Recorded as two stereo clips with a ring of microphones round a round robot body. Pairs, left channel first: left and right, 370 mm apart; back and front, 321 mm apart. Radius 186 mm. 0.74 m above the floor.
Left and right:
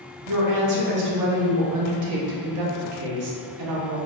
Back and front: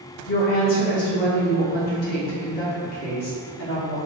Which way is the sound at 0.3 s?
120° right.